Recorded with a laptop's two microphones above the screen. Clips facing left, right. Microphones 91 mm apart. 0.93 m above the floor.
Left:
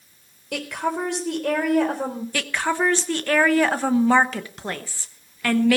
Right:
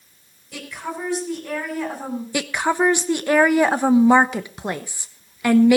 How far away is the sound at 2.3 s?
About 0.9 m.